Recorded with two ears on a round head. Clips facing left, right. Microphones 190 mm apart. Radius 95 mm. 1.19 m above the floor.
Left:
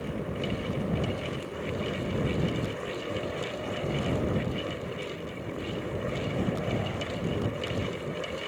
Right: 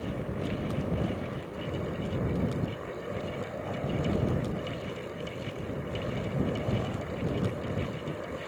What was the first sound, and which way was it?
Only background noise.